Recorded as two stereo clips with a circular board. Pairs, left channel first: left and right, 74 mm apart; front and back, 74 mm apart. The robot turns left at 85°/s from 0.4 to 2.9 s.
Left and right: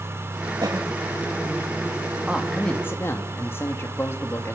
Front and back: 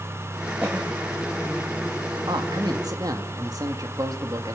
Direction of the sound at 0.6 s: 110° right.